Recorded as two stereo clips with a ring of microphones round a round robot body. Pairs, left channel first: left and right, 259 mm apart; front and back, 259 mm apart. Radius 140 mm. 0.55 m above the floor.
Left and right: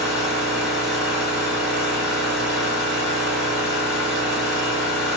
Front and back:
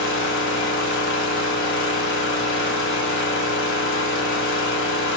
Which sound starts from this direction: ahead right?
An engine running, at 0.0 s.